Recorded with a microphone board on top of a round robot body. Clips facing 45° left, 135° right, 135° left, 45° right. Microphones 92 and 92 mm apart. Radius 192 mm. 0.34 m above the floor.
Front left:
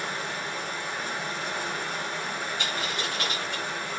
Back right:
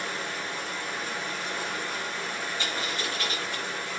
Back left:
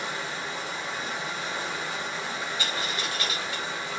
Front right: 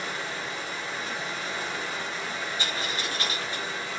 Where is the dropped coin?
15° left, 1.4 m.